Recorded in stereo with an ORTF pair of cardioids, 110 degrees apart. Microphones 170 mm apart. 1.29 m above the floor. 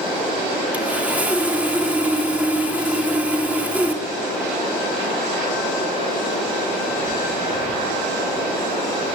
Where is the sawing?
10° right, 3 m.